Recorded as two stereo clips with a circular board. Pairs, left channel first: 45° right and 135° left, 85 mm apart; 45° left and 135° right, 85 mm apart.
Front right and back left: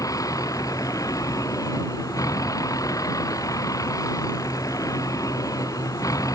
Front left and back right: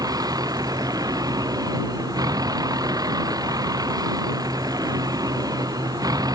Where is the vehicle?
95° right.